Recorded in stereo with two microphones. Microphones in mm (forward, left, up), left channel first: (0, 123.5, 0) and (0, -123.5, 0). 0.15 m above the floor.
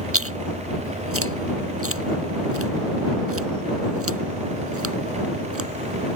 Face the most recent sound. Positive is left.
turn(degrees=-75)  # may be behind; listen again after turning